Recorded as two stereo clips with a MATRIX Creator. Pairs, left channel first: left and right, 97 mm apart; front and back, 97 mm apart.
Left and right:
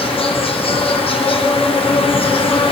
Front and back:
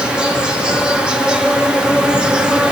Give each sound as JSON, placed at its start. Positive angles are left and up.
{"t": 0.0, "sound": "an insect", "azimuth_deg": 100, "distance_m": 0.7}